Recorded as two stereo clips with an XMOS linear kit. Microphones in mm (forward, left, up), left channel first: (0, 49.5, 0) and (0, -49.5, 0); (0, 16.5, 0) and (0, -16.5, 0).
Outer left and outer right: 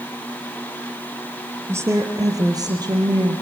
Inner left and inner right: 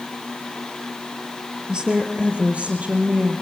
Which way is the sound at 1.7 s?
25° right (ahead or behind).